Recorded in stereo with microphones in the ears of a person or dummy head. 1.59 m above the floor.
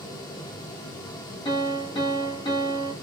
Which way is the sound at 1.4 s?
25° left (ahead or behind).